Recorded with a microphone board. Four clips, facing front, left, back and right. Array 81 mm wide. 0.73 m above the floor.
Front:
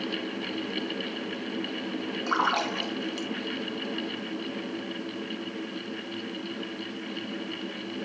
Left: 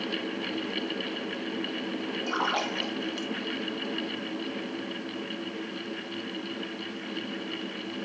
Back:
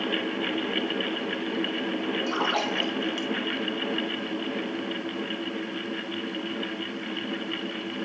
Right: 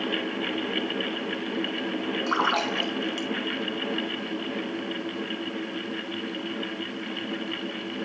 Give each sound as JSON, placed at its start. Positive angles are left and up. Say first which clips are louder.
{"t": 2.3, "sound": "a splash", "louder": "right 4 dB, front 4 dB", "azimuth_deg": -50, "distance_m": 5.5}